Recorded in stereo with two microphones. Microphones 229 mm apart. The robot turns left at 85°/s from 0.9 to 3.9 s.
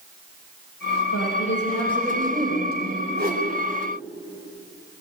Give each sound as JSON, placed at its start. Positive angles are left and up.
{"t": 1.1, "sound": "a woman speaking", "azimuth_deg": 90, "distance_m": 5.0}
{"t": 3.1, "sound": "a whoosh", "azimuth_deg": -130, "distance_m": 3.5}